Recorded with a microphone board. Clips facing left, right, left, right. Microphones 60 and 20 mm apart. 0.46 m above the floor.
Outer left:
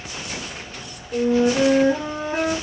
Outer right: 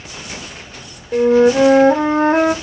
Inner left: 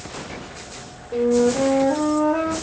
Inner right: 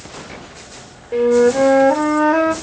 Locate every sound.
1.1 s a flute: 65° right (ahead or behind), 0.9 m